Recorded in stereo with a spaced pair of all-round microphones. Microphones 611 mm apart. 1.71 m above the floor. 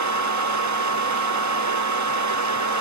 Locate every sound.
0.0 s a fan: 30° right (ahead or behind), 0.7 m